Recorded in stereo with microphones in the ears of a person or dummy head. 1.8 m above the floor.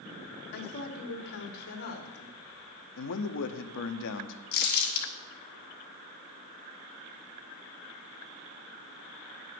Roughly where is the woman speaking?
Left.